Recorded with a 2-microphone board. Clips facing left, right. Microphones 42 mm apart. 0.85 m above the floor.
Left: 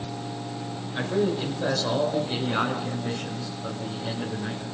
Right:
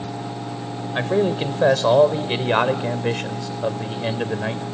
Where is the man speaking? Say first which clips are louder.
Right 5 dB; 45° right (ahead or behind), 3 m; by 4.7 s 80° right, 3 m.